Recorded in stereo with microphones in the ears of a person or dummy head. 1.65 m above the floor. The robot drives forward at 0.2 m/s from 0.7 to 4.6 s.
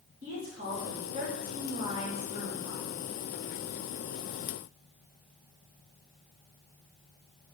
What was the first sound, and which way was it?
A woman speaking, 40° right (ahead or behind).